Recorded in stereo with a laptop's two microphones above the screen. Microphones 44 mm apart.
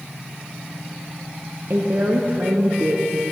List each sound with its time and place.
1.7 s a woman speaking: 50° right (ahead or behind), 0.6 m